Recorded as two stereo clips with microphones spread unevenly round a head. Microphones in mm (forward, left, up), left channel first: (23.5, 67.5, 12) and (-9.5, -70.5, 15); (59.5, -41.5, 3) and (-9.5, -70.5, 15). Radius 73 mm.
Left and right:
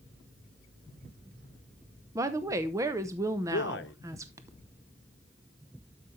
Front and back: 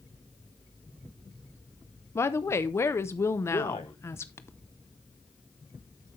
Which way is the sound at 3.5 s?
65° left.